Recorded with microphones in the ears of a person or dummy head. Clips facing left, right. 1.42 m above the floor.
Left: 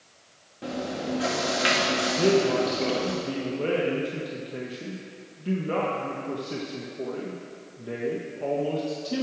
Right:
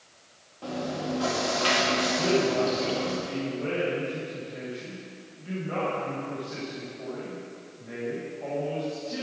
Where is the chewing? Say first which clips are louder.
Left 1 dB; 30° left (ahead or behind), 1.5 m.